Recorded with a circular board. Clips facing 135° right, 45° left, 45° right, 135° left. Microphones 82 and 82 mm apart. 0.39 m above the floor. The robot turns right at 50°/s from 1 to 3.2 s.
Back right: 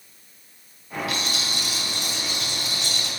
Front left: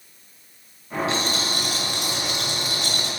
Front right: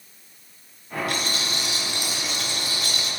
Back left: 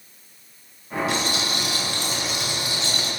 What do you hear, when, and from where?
1.1 s a rattle: 15° right, 6 m; by 3.1 s 85° left, 6 m